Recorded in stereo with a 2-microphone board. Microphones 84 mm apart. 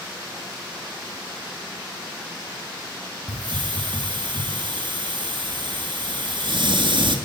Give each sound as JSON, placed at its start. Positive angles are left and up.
{"t": 3.3, "sound": "a hiss", "side_deg": -70, "distance_m": 3.0}